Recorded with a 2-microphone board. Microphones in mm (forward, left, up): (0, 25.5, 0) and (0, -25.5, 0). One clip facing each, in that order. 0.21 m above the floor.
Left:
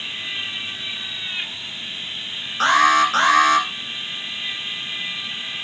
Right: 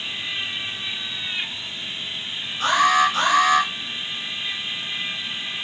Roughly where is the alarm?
Left.